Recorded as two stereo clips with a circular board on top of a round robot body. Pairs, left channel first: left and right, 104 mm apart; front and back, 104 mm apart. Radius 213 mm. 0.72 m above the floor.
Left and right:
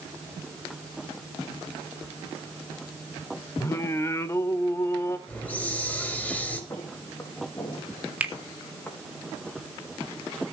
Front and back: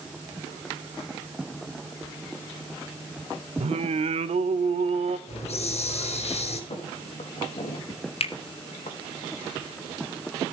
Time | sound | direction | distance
3.6 | singing | 160° left | 0.7 m
5.3 | a hiss | 15° left | 5.5 m
6.7 | footsteps | 25° left | 5.5 m
8.2 | a finger snap | 10° right | 3 m